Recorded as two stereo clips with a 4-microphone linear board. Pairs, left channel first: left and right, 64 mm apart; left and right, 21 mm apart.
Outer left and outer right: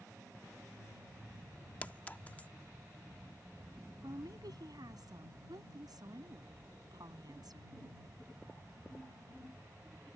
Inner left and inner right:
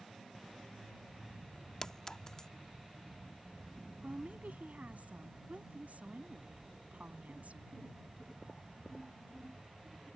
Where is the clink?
25° left (ahead or behind).